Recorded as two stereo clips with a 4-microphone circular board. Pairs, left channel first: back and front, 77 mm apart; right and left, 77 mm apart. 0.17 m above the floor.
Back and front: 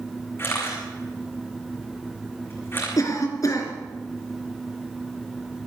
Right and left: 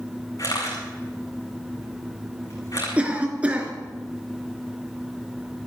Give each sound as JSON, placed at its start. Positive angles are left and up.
{"t": 0.4, "sound": "a camera shutter", "azimuth_deg": -125, "distance_m": 9.5}
{"t": 3.0, "sound": "a cough", "azimuth_deg": 160, "distance_m": 3.0}